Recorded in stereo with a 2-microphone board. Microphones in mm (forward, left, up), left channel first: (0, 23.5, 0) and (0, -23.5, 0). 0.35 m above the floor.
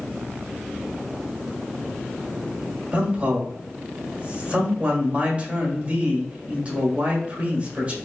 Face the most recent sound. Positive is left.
turn(degrees=-30)  # may be behind; listen again after turning